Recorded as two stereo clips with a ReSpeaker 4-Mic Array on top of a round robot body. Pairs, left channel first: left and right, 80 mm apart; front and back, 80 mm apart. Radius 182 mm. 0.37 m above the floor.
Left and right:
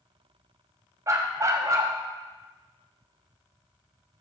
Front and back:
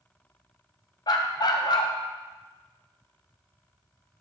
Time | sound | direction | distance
1.1 | a dog barking | 35° right | 0.8 m